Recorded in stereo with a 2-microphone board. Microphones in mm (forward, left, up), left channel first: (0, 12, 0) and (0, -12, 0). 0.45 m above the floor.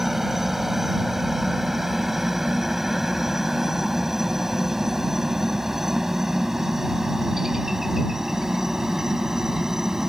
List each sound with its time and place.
0.0 s a helicopter: 15° right (ahead or behind); by 10.1 s 25° right (ahead or behind)